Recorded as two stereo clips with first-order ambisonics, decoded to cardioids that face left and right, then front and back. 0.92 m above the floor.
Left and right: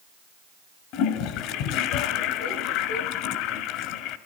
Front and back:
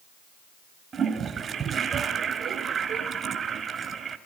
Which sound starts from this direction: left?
A toilet flushing, at 0.9 s.